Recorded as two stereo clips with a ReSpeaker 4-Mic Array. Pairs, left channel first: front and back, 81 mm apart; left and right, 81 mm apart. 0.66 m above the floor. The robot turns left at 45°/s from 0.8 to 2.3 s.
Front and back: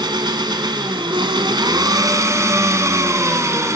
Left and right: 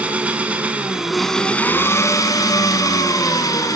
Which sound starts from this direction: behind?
An engine running, at 0.0 s.